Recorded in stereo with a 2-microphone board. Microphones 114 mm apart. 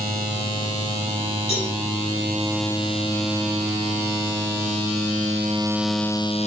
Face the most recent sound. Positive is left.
turn(degrees=60)  # may be behind; listen again after turning